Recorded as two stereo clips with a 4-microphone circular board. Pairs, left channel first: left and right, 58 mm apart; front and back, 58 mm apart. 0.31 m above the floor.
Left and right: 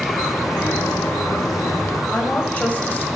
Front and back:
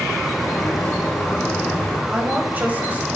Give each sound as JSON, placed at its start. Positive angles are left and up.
{"t": 0.3, "sound": "a sliding door", "azimuth_deg": 60, "distance_m": 1.2}
{"t": 2.1, "sound": "a woman speaking", "azimuth_deg": 140, "distance_m": 1.3}